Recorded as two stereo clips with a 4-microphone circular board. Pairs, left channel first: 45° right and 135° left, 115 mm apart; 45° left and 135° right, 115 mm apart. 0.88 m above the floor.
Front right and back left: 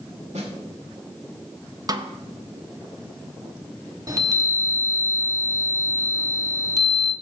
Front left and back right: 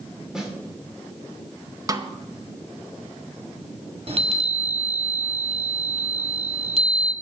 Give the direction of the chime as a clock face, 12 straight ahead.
6 o'clock.